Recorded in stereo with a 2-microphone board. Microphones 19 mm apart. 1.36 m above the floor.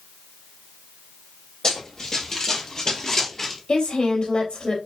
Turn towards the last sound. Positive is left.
turn(degrees=70)  # may be behind; listen again after turning